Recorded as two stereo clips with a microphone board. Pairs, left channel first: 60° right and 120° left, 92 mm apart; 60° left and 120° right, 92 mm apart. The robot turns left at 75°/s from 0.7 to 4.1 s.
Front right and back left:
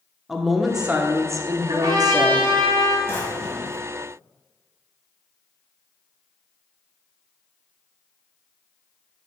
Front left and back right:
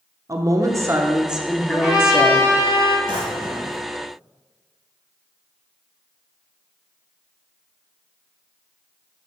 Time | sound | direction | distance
0.3 | a woman speaking | 155° right | 0.7 m
1.7 | a trumpet | 175° right | 1.8 m
3.1 | a drawer | 115° right | 1.5 m